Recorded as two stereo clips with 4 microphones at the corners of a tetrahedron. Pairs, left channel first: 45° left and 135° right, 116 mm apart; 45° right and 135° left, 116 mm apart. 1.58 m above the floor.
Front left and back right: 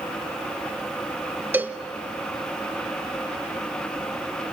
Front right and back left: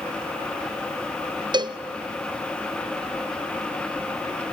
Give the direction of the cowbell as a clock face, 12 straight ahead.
7 o'clock.